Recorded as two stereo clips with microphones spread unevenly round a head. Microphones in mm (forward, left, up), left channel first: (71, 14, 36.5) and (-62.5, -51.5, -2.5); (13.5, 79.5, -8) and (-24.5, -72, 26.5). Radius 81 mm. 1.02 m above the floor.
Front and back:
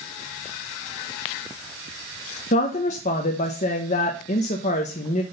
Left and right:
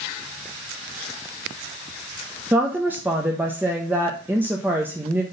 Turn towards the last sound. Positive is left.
turn(degrees=-20)